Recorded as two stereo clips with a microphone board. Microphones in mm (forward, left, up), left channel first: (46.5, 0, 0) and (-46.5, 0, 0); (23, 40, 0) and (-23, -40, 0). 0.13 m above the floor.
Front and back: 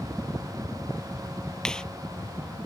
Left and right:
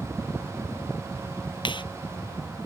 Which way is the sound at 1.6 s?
80° left.